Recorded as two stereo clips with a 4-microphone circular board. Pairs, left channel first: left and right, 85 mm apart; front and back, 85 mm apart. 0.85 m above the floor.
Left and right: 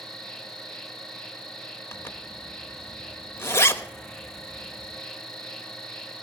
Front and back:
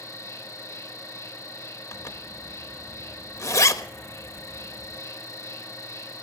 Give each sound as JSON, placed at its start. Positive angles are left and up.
{"t": 0.0, "sound": "an insect", "azimuth_deg": 15, "distance_m": 1.1}
{"t": 1.9, "sound": "a zipper", "azimuth_deg": 40, "distance_m": 1.0}